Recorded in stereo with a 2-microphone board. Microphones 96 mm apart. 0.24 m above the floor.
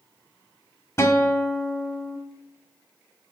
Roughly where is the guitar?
Left.